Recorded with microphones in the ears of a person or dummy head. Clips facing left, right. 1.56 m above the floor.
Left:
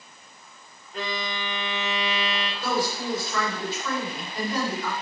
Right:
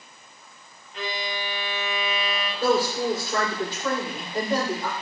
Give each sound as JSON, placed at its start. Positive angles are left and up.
{"t": 0.9, "sound": "a violin", "side_deg": 35, "distance_m": 1.5}
{"t": 2.6, "sound": "a woman speaking", "side_deg": -50, "distance_m": 5.5}